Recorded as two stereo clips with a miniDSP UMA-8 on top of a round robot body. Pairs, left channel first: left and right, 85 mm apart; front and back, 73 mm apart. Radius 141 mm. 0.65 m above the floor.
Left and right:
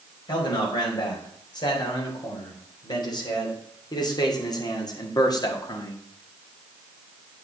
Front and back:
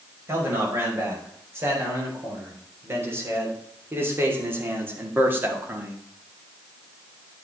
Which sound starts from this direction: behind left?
A man speaking, at 0.3 s.